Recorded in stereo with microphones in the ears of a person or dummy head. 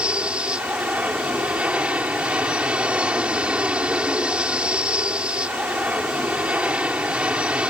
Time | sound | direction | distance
0.0 | an aircraft | 5° right (ahead or behind) | ?